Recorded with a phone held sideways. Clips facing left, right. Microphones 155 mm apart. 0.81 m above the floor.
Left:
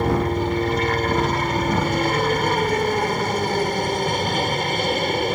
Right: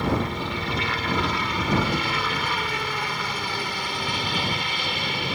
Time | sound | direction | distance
0.0 | a helicopter | 45° left (ahead or behind) | ?